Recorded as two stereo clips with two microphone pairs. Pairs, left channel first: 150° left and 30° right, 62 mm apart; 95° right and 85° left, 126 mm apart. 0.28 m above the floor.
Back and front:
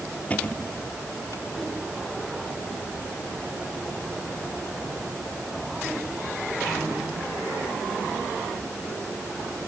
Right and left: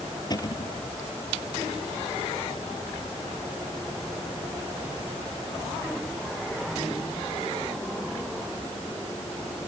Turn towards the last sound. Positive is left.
turn(degrees=-150)